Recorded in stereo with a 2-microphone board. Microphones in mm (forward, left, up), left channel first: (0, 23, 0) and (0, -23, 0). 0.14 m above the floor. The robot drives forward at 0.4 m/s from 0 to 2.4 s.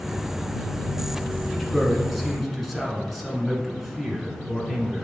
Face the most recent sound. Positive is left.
turn(degrees=5)  # may be behind; listen again after turning